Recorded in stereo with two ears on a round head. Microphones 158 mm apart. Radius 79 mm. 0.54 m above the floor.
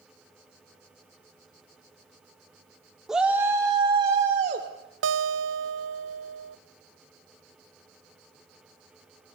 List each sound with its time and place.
3.1 s a shout: centre (ahead or behind), 1.1 m; by 4.7 s 45° right (ahead or behind), 1.6 m
5.0 s a guitar: 75° right (ahead or behind), 0.5 m